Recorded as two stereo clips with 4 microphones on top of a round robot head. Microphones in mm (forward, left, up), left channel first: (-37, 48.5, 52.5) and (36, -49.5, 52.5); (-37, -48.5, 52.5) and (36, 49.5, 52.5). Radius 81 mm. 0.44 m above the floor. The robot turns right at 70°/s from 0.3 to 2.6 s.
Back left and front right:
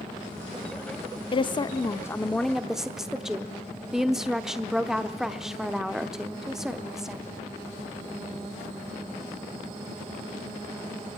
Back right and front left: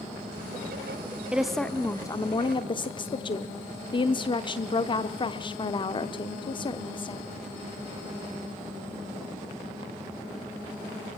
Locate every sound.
1.3 s a woman speaking: 130° left, 0.9 m; by 7.2 s 140° right, 0.9 m